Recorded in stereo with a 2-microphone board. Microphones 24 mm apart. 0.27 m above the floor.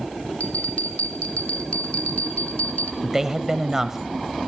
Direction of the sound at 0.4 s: 65° left (ahead or behind).